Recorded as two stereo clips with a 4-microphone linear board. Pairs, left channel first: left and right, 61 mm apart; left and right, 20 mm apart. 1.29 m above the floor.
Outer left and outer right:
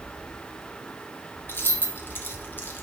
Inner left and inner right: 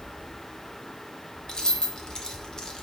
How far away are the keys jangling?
About 0.5 m.